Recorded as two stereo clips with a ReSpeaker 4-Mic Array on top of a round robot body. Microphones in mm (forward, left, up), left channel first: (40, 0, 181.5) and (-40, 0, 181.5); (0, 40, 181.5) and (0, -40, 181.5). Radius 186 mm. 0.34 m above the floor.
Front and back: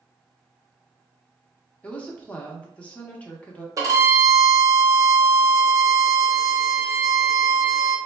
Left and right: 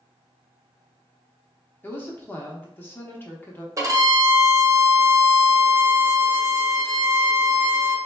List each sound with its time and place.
1.8 s a woman speaking: 60° left, 0.9 m
3.8 s a violin: 135° right, 0.9 m